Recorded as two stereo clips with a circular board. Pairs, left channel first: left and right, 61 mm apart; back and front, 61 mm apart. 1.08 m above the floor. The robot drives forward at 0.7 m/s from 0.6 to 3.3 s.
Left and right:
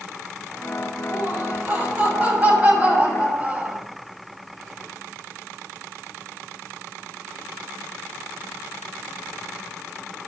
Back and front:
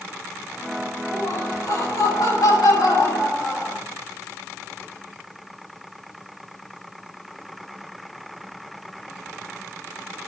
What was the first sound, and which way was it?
Laughter, 155° right.